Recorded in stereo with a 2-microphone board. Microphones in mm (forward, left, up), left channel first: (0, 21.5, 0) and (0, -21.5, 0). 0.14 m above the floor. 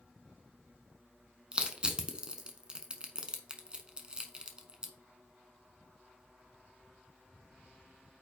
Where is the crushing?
25° right (ahead or behind), 1.0 m.